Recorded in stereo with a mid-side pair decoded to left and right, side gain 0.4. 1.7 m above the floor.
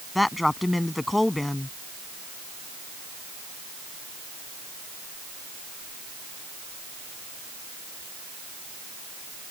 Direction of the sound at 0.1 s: 15° left.